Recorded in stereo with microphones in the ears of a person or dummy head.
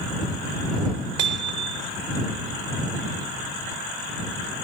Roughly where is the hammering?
Right.